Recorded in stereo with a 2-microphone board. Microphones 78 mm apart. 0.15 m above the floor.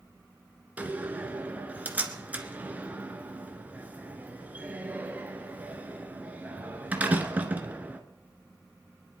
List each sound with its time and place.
0.8 s a door slam: 20° right (ahead or behind), 1.6 m